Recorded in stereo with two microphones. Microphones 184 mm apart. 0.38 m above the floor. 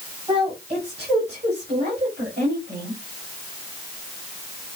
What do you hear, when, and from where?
0.3 s a woman speaking: 30° right (ahead or behind), 2.0 m; by 3.0 s 45° right (ahead or behind), 3 m